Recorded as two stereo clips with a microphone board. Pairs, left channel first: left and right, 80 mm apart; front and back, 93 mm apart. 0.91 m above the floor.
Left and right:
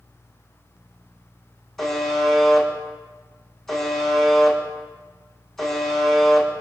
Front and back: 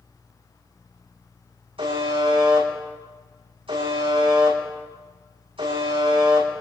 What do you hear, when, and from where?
1.8 s a buzzer: 175° left, 9 m